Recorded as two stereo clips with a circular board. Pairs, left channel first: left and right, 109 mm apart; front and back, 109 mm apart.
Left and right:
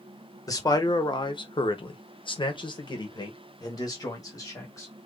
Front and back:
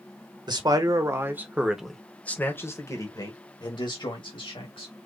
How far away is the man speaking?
About 1.2 m.